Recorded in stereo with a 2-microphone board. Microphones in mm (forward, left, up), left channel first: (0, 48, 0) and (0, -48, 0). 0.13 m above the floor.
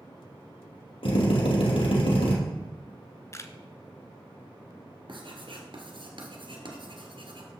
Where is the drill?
65° left (ahead or behind), 3 m.